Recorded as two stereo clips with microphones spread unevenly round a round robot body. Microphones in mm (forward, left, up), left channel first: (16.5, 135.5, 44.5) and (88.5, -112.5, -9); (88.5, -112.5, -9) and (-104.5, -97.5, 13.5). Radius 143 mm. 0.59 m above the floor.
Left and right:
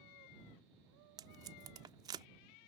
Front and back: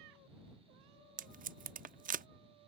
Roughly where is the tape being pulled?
Behind right.